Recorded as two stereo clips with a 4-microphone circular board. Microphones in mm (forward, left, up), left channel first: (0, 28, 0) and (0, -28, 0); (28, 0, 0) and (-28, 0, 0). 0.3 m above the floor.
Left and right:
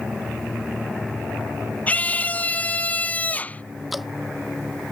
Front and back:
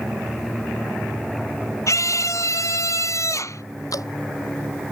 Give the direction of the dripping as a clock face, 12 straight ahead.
12 o'clock.